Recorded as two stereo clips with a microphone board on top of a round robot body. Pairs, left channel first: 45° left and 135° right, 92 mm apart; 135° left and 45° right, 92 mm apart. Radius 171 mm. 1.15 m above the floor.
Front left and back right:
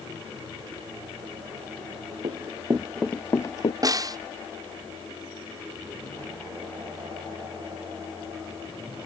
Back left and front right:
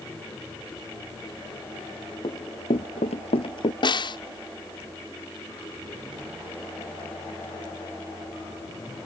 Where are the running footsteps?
175° right; by 3.7 s 90° left.